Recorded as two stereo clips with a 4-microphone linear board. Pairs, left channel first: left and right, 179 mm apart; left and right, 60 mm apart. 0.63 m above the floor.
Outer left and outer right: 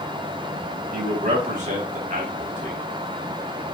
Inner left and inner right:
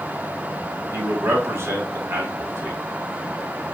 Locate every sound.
0.9 s a man speaking: 45° right (ahead or behind), 1.6 m